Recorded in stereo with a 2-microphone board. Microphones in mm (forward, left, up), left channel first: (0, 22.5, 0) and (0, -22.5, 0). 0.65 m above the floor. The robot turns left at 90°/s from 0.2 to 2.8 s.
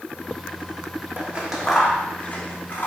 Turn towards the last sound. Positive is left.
turn(degrees=50)  # may be behind; listen again after turning